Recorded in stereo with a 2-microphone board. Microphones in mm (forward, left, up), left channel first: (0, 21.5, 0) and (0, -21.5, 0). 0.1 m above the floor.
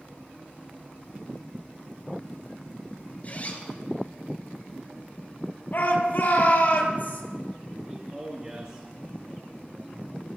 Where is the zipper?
40° left (ahead or behind), 1.9 m.